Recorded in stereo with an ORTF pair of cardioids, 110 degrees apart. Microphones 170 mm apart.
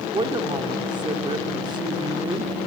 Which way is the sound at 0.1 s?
30° right.